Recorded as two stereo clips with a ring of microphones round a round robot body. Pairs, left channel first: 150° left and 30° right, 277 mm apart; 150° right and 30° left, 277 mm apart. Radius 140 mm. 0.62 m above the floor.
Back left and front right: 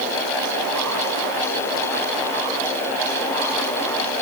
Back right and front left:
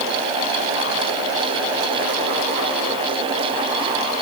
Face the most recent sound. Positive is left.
No sound to turn to.